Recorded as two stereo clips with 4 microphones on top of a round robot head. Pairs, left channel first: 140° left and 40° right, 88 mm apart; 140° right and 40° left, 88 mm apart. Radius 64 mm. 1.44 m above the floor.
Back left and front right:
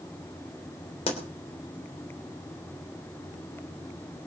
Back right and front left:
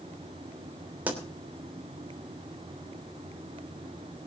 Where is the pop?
115° left, 3 m.